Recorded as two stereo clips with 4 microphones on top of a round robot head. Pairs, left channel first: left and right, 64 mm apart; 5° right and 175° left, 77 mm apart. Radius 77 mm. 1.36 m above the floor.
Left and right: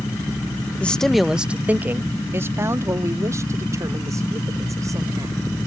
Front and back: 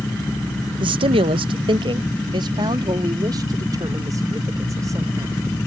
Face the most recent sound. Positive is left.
turn(degrees=-125)